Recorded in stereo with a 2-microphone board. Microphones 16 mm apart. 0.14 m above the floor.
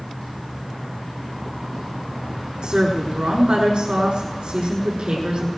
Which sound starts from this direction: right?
A woman speaking, at 2.6 s.